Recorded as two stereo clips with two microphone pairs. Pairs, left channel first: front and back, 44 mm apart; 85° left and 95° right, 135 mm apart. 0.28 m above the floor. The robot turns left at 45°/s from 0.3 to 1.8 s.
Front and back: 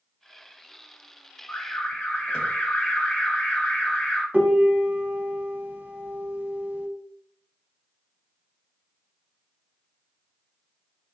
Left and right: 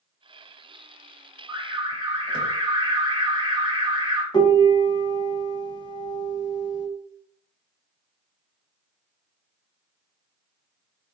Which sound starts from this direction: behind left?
A piano, at 4.3 s.